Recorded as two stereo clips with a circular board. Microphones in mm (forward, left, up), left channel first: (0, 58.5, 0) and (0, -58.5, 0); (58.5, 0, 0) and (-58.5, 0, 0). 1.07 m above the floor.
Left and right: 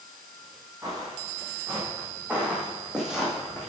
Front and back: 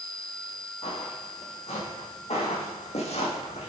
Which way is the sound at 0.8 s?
30° right.